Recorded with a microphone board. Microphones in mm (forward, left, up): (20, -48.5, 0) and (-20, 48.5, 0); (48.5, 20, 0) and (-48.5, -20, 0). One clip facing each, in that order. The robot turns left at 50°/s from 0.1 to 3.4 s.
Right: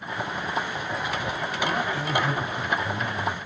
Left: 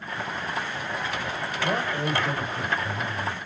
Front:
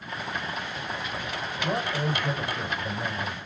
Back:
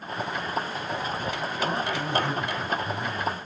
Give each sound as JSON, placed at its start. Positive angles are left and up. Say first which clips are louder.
{"t": 1.6, "sound": "a man speaking", "louder": "left 1 dB, front 1 dB", "azimuth_deg": 85, "distance_m": 3.0}